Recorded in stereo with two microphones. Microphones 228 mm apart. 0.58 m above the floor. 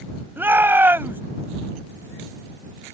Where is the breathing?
I don't hear breathing.